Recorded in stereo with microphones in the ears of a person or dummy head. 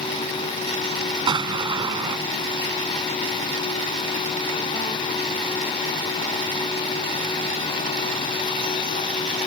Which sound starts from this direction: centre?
An explosion, at 1.3 s.